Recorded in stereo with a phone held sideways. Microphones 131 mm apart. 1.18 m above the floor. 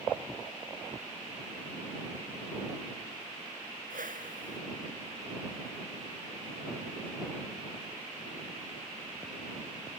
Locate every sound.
3.9 s a whoosh: 85° right